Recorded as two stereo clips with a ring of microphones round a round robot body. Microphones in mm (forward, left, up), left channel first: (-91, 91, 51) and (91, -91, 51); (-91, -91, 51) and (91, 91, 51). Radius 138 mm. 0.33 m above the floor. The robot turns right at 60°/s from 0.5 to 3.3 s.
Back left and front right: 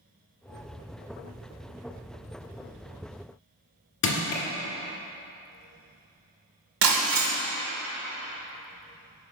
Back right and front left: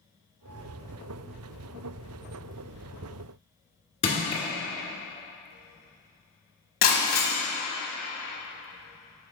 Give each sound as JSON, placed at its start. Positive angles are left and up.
{"t": 4.0, "sound": "crushing", "azimuth_deg": 155, "distance_m": 1.8}
{"t": 6.8, "sound": "breaking glass", "azimuth_deg": -80, "distance_m": 1.4}